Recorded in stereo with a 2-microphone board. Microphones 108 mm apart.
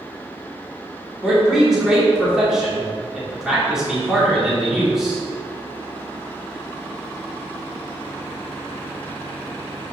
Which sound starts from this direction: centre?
A man speaking, at 1.2 s.